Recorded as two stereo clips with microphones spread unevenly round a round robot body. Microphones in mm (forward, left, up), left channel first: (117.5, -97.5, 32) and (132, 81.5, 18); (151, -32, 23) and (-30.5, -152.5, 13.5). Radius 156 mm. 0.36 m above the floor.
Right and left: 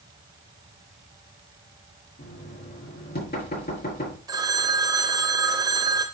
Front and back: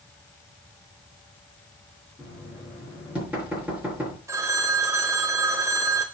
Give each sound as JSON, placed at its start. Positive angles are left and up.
{"t": 2.2, "sound": "knocking", "azimuth_deg": -65, "distance_m": 5.0}
{"t": 4.3, "sound": "a phone ringing", "azimuth_deg": 145, "distance_m": 0.6}